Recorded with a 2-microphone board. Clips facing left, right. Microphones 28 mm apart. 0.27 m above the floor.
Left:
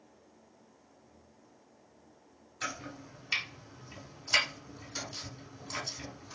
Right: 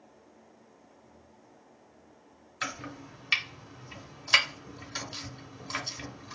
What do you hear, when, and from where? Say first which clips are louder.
2.6 s chopping: right 3 dB; 30° right (ahead or behind), 1.2 m